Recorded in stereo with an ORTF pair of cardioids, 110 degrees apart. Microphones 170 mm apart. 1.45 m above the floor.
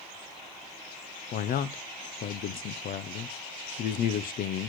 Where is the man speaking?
60° left, 0.6 m.